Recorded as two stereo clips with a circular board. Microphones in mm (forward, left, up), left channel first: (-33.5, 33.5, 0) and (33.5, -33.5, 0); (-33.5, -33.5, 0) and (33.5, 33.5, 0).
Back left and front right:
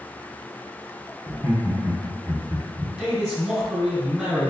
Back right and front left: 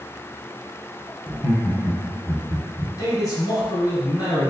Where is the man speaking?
120° right, 1.9 m.